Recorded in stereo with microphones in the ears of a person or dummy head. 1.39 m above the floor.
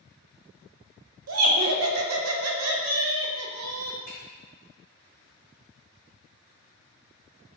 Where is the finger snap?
55° left (ahead or behind), 2.0 m.